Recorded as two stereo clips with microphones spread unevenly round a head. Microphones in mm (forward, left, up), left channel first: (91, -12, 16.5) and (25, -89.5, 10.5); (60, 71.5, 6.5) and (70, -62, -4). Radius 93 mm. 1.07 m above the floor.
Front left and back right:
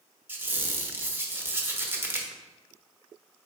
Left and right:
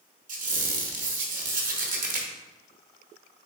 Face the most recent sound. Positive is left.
turn(degrees=-60)